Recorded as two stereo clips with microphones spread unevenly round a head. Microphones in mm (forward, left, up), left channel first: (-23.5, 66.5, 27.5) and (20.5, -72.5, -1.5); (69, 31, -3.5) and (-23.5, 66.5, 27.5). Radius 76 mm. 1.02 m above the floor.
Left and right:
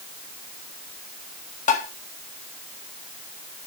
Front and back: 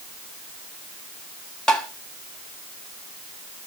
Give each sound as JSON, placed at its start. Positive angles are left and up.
{"t": 1.7, "sound": "tapping", "azimuth_deg": 60, "distance_m": 1.8}